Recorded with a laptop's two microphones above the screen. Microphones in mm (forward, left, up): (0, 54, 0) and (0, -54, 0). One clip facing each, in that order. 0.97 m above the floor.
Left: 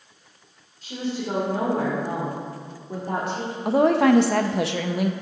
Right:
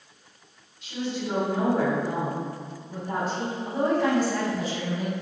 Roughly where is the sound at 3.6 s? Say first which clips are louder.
Left 7 dB; left.